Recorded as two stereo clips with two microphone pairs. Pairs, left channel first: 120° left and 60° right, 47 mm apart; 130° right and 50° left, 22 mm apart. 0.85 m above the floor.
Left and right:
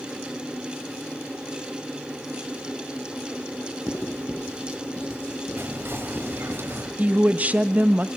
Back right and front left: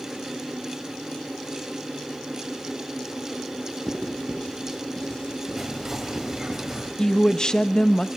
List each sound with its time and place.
3.9 s writing: 170° left, 8 m
5.6 s whispering: 20° right, 5.5 m
7.0 s a woman speaking: 95° right, 1.1 m